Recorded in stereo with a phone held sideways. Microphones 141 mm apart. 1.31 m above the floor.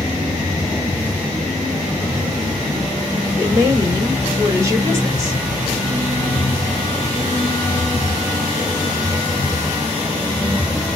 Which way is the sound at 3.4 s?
25° right (ahead or behind).